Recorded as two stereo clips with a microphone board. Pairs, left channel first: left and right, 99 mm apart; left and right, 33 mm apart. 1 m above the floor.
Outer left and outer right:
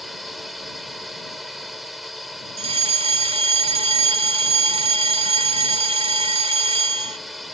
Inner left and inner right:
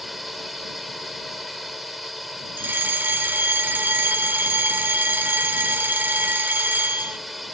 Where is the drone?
Centre (ahead or behind).